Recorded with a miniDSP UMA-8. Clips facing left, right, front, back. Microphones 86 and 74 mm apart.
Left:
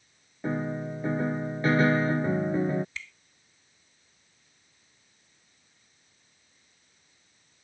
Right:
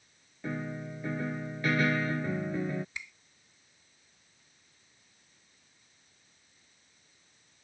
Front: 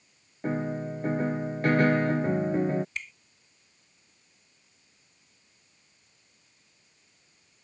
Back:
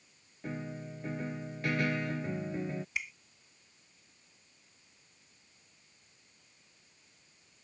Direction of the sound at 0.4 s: 35° left.